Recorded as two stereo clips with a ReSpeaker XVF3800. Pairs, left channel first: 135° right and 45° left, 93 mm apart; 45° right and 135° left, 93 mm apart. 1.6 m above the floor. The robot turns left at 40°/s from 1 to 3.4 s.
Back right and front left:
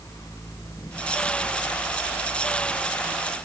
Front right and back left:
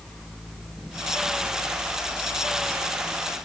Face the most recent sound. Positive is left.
No sound to turn to.